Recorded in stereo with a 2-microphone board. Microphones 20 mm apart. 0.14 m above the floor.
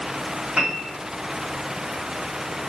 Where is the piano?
55° right (ahead or behind), 4 m.